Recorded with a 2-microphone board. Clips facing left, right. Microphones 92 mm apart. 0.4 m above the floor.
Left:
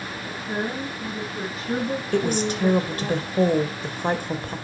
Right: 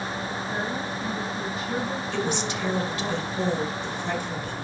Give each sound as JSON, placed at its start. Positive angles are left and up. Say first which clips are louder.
{"t": 0.3, "sound": "a woman speaking", "louder": "left 5 dB", "side_deg": 55, "distance_m": 4.5}
{"t": 2.1, "sound": "a woman speaking", "louder": "left 6 dB", "side_deg": 45, "distance_m": 2.0}